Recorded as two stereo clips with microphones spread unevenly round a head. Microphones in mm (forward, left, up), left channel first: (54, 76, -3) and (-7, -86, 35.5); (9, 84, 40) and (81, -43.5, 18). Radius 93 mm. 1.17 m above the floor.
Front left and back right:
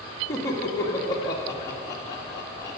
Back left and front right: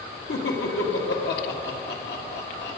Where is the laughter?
140° left, 2 m.